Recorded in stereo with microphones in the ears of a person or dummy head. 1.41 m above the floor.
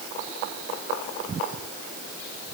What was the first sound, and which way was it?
Only background noise.